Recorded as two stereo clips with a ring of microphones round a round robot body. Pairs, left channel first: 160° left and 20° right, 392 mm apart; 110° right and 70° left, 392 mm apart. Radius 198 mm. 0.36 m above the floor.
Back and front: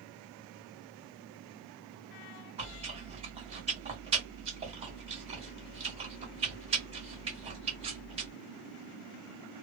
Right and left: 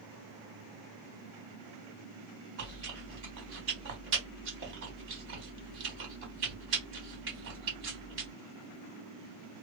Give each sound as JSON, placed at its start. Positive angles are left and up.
{"t": 2.6, "sound": "chewing", "azimuth_deg": 40, "distance_m": 1.5}